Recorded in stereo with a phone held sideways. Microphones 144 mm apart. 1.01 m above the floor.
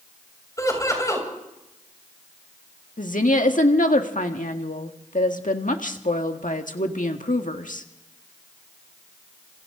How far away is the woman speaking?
About 1.7 m.